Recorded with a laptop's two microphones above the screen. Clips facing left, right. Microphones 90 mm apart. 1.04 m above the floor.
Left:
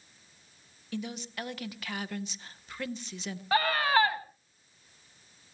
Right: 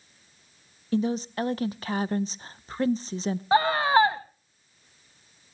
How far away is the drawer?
No drawer in this recording.